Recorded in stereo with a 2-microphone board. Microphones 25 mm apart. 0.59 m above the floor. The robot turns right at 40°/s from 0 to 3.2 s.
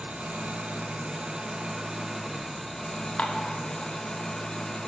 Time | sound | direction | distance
0.0 | an engine running | 105° right | 0.7 m
3.2 | dishes clattering | 50° left (ahead or behind) | 0.5 m